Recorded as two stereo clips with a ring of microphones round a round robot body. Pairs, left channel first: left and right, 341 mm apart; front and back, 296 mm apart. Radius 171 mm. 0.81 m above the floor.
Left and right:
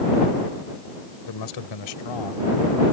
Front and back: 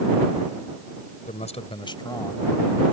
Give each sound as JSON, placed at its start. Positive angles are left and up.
{"t": 1.3, "sound": "a man speaking", "azimuth_deg": 65}